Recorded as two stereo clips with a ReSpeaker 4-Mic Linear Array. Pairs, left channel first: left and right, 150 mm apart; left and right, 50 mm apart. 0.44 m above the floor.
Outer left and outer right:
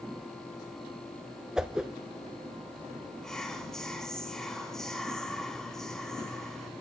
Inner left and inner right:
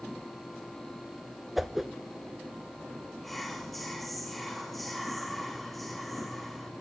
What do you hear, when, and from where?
1.6 s a whoosh: 5° right (ahead or behind), 0.8 m
3.2 s whispering: 5° left (ahead or behind), 4 m